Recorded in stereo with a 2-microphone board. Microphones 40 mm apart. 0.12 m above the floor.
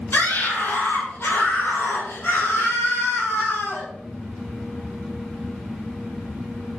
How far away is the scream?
About 4 m.